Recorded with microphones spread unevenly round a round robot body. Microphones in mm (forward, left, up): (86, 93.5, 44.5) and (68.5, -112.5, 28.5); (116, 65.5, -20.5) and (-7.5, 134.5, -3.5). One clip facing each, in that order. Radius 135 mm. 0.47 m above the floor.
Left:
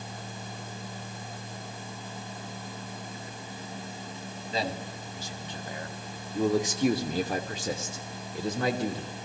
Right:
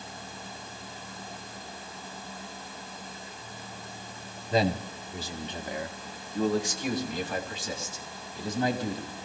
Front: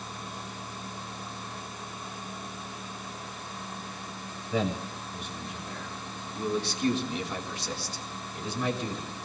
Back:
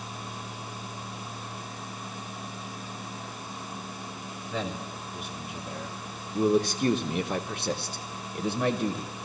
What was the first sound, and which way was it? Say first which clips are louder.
A man speaking: right 7 dB, front 4 dB; 105° right.